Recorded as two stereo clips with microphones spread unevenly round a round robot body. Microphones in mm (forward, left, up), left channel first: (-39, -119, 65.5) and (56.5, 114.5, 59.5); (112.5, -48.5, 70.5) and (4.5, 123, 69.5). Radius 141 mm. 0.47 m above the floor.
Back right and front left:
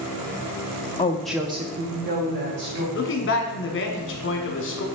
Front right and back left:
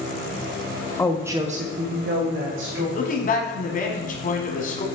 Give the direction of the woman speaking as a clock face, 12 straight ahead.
3 o'clock.